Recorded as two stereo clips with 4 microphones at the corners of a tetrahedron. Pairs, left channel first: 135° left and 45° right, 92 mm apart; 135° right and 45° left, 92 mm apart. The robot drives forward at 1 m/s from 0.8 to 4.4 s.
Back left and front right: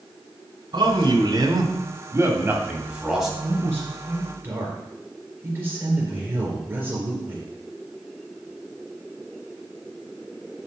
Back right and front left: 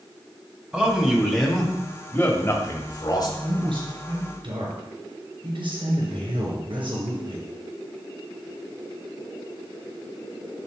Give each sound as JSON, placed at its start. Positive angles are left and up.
{"t": 0.7, "sound": "a man speaking", "azimuth_deg": -30, "distance_m": 2.0}
{"t": 3.4, "sound": "a man speaking", "azimuth_deg": 15, "distance_m": 5.5}